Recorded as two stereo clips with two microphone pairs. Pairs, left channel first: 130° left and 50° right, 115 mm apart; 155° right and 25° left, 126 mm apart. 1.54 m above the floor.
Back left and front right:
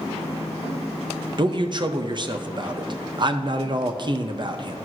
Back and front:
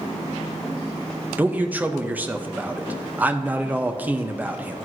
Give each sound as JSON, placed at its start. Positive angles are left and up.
{"t": 1.4, "sound": "a man speaking", "azimuth_deg": -50, "distance_m": 0.5}